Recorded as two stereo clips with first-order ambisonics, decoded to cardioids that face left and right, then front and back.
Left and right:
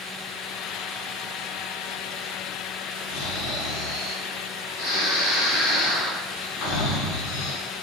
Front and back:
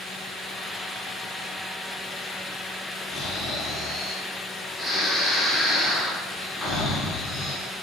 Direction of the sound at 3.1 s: 65° left.